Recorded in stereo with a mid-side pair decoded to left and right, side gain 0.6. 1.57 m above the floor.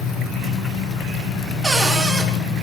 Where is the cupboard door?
15° right, 3 m.